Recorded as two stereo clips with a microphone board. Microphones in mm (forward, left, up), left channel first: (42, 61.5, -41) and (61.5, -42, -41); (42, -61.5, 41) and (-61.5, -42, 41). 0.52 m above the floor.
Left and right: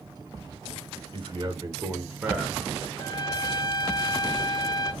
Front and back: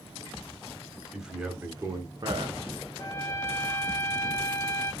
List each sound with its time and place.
1.1 s a man speaking: 105° right, 1.5 m; by 2.6 s 170° right, 1.3 m
3.0 s a trumpet: 45° left, 1.0 m